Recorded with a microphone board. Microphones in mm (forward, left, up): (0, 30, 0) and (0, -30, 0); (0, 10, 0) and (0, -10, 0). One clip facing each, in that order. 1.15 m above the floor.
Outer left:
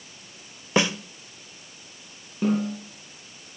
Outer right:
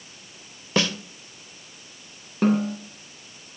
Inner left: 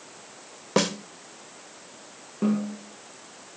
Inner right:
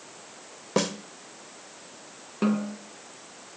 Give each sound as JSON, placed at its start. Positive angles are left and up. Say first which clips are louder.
{"t": 0.8, "sound": "a snare drum", "louder": "outer left 1 dB, inner left 3 dB", "side_deg": 20, "distance_m": 0.9}
{"t": 2.4, "sound": "a snare drum", "louder": "outer right 3 dB, even", "side_deg": -70, "distance_m": 6.0}